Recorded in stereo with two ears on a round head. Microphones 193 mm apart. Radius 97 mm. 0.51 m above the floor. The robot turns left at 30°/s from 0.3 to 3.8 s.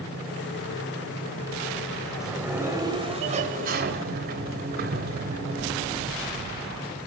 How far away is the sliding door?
About 2 m.